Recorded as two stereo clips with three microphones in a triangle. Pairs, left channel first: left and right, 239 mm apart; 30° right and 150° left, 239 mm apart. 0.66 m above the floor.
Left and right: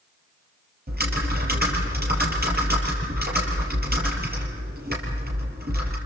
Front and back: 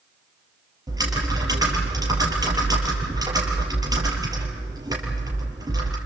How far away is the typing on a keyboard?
About 5 m.